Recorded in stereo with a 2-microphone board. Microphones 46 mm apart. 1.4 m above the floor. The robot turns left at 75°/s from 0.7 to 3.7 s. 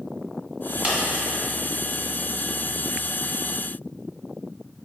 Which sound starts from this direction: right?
A dropped coin, at 0.8 s.